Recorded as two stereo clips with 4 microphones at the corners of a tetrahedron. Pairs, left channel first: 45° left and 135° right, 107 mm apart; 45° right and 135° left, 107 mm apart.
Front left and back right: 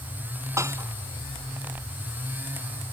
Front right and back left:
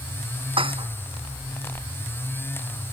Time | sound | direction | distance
0.6 | dishes clattering | 165° left | ?